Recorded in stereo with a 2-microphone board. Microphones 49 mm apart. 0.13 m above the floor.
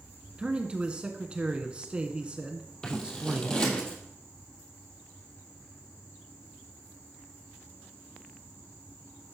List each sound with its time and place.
0.4 s a man speaking: 25° right (ahead or behind), 1.1 m
2.8 s scissors: 15° left (ahead or behind), 2.5 m